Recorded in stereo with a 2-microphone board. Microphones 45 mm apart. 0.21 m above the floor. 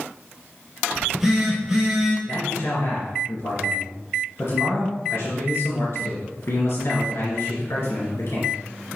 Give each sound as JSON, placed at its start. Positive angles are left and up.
{"t": 0.9, "sound": "a phone buzzing", "side_deg": -5, "distance_m": 3.0}
{"t": 2.2, "sound": "a man speaking", "side_deg": 65, "distance_m": 2.5}